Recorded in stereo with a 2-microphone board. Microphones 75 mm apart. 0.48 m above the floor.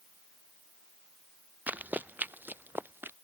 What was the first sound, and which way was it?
Running footsteps, 20° right (ahead or behind).